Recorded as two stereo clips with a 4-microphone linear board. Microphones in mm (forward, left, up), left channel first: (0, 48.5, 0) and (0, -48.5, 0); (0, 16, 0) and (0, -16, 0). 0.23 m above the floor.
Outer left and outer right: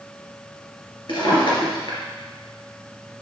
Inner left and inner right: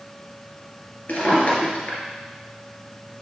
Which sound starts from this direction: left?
A drawer, at 1.1 s.